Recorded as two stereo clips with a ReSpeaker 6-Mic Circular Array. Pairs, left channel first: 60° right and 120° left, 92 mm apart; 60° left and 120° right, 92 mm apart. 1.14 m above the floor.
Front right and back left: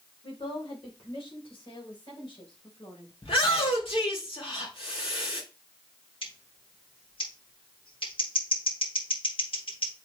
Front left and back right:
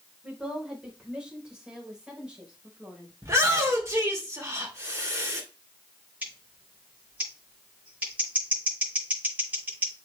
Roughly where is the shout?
Ahead right.